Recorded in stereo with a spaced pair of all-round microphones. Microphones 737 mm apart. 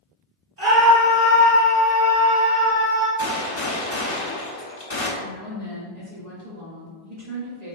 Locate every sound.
0.6 s a scream: 60° right (ahead or behind), 1.6 m; by 3.1 s 85° right, 2 m
3.2 s a gunshot: 45° left (ahead or behind), 0.9 m
5.2 s a woman speaking: 60° right (ahead or behind), 1.5 m